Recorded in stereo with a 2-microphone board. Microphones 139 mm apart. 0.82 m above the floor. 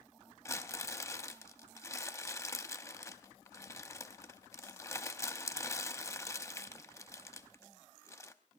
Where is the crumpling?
20° left (ahead or behind), 0.7 m.